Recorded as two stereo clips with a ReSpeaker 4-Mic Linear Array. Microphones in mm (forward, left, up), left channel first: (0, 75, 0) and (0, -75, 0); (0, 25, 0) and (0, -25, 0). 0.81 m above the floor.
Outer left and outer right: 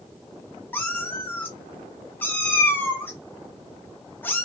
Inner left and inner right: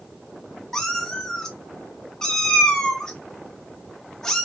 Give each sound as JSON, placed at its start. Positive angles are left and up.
{"t": 0.7, "sound": "a cat meowing", "side_deg": 15, "distance_m": 0.6}